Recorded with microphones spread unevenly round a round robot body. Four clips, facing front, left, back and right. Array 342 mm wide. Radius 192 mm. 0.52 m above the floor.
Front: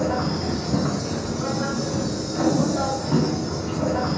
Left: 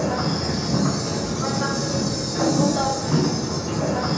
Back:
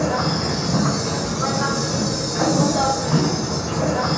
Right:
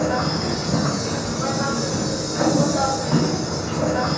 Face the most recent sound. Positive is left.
turn(degrees=45)